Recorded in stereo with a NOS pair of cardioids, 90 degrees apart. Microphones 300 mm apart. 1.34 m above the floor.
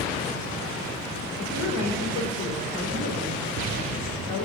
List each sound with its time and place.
1.4 s a woman speaking: 70° left, 4.5 m